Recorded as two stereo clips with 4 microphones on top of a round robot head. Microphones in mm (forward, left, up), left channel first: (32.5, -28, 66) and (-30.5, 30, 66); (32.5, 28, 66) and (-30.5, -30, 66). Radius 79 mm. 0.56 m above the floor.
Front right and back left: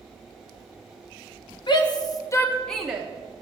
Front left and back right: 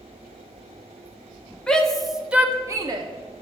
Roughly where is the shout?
Ahead right.